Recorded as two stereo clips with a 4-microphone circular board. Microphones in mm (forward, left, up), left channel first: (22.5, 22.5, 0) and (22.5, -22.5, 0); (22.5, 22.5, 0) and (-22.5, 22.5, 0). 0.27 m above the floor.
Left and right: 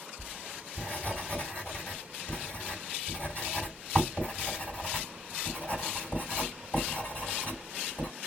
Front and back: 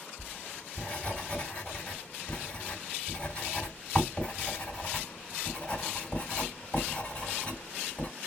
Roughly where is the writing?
Ahead left.